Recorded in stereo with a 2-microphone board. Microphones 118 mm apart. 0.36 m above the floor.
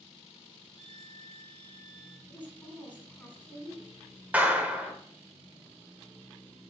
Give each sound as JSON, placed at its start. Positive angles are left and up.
{"t": 0.8, "sound": "a violin", "side_deg": -70, "distance_m": 0.8}
{"t": 2.3, "sound": "a woman speaking", "side_deg": 10, "distance_m": 3.0}
{"t": 4.3, "sound": "a clap", "side_deg": -15, "distance_m": 1.0}